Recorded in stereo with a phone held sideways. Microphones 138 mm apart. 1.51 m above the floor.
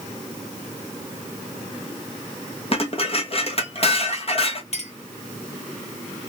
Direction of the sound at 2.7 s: 45° left (ahead or behind).